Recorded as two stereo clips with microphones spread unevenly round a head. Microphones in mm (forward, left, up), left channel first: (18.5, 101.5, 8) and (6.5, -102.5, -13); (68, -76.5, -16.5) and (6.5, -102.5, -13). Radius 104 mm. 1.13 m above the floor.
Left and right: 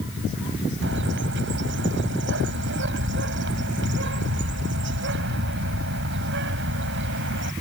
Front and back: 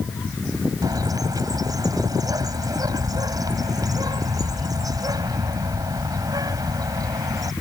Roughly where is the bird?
Behind right.